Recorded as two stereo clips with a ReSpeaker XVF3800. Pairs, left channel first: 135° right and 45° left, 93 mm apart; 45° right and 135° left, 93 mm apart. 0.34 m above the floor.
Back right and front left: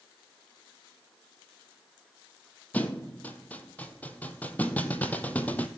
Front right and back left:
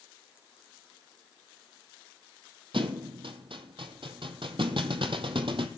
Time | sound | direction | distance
2.7 | a thud | 155° left | 0.8 m